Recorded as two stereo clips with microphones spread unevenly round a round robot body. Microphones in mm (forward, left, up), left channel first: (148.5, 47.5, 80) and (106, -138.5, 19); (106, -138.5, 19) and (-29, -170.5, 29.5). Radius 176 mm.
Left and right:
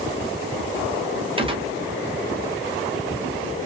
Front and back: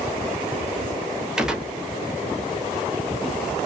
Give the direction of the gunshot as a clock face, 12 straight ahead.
3 o'clock.